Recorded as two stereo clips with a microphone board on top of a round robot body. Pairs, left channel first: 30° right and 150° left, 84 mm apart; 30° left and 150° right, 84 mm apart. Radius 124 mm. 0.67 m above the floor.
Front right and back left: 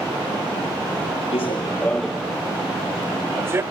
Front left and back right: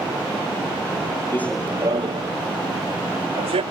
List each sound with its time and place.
1.3 s running footsteps: 30° right; by 3.6 s 145° right